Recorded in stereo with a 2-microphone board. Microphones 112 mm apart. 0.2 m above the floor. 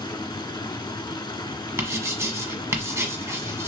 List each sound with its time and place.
0.0 s running water: 40° left (ahead or behind), 0.7 m
1.8 s writing: 25° right (ahead or behind), 1.1 m